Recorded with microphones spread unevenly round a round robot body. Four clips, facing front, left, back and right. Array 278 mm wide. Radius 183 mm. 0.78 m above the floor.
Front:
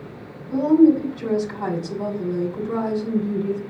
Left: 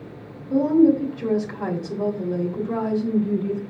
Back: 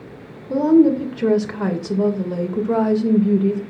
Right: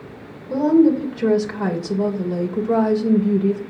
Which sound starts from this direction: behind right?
A woman speaking, at 0.5 s.